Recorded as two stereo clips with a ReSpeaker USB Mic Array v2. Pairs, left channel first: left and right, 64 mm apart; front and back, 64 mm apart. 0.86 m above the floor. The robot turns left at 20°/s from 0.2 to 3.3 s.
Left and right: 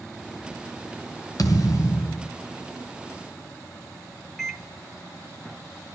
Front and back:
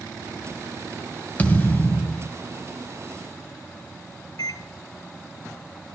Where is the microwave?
Straight ahead, 2.5 m.